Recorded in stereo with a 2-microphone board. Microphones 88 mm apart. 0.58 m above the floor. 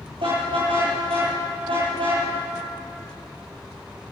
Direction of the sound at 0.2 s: 75° right (ahead or behind).